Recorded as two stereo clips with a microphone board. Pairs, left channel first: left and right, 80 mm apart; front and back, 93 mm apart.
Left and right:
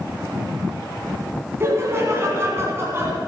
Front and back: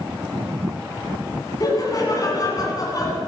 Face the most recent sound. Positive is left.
turn(degrees=-40)